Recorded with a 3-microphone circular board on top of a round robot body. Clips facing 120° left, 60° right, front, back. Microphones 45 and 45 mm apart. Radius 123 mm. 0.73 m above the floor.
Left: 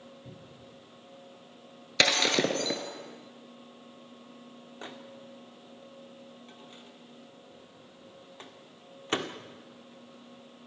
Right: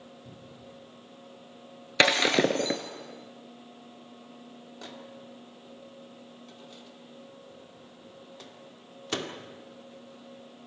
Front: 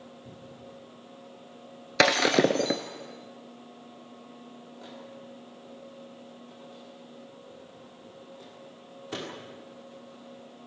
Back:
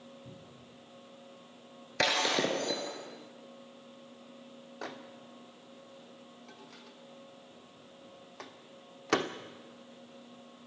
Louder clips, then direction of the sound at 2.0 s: Right 3 dB, front 7 dB; 10° left.